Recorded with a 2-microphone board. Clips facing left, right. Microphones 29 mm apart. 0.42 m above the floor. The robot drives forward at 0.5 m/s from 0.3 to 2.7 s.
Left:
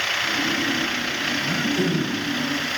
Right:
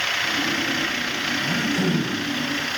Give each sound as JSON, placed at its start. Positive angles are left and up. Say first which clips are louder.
{"t": 1.4, "sound": "throat clearing", "louder": "even", "side_deg": -50, "distance_m": 1.1}